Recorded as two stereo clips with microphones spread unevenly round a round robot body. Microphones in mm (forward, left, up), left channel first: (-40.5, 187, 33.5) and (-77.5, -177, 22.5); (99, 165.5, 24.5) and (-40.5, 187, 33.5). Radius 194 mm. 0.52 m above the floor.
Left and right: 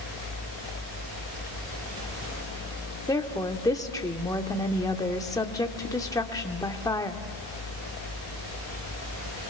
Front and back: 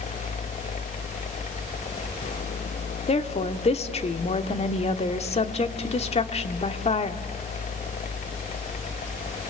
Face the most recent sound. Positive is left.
turn(degrees=5)